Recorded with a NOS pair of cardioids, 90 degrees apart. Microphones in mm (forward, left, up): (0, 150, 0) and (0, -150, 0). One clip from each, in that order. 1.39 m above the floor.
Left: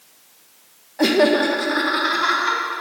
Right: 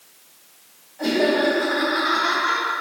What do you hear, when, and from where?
1.0 s laughter: 70° left, 0.9 m; by 2.6 s 55° left, 3 m